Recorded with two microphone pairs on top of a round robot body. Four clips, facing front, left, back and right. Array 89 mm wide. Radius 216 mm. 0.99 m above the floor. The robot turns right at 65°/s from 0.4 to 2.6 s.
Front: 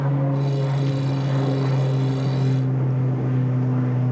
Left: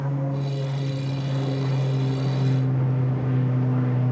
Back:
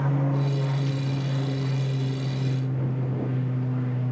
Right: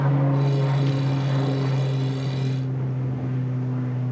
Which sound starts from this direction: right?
An aircraft, at 0.0 s.